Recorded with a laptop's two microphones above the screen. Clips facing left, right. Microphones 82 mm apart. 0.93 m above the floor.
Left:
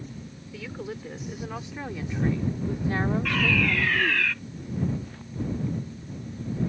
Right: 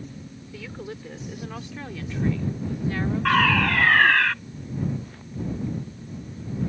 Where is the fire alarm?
50° right (ahead or behind).